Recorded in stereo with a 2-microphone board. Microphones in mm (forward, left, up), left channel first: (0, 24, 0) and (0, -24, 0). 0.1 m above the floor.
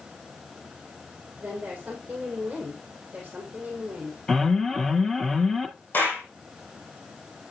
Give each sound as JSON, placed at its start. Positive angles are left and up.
{"t": 1.4, "sound": "a woman speaking", "side_deg": -20, "distance_m": 3.5}
{"t": 4.3, "sound": "an alarm", "side_deg": 10, "distance_m": 1.6}
{"t": 5.9, "sound": "a clap", "side_deg": 45, "distance_m": 4.5}